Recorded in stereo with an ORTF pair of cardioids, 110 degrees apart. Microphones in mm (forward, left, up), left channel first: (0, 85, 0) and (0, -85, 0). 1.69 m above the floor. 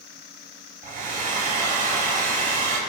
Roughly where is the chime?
I don't hear a chime.